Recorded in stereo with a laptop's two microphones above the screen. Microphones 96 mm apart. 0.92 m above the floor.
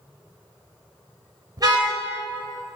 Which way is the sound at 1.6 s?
40° right (ahead or behind).